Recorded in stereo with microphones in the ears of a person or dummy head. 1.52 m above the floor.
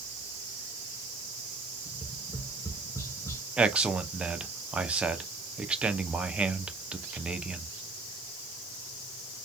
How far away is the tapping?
About 0.9 m.